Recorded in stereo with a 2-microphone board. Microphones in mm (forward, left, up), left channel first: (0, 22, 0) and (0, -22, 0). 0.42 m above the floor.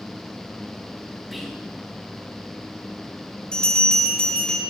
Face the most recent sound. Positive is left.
turn(degrees=20)  # may be behind; listen again after turning